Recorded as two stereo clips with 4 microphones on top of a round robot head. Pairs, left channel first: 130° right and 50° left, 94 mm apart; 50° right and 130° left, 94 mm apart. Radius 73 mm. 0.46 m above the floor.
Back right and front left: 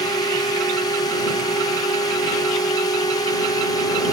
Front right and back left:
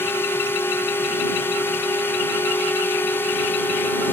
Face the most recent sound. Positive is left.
turn(degrees=-110)